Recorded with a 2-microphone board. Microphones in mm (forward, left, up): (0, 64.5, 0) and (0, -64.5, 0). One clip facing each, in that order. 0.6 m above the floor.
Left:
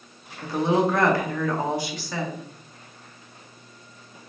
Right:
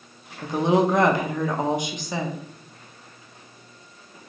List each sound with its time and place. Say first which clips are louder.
0.4 s a woman speaking: right 2 dB; 20° right (ahead or behind), 0.6 m